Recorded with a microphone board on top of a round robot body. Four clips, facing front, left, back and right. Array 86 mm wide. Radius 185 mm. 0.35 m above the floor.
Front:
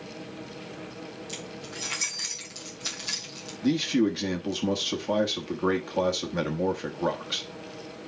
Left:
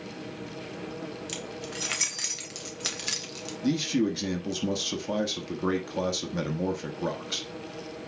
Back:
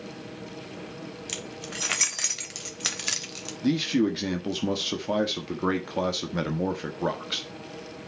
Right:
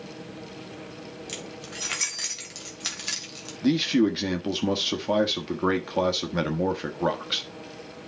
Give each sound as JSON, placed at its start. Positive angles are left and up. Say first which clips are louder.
{"t": 1.3, "sound": "keys jangling", "louder": "left 2 dB, back 1 dB", "azimuth_deg": 180, "distance_m": 2.5}
{"t": 3.6, "sound": "a man speaking", "louder": "right 4 dB, even", "azimuth_deg": -100, "distance_m": 1.5}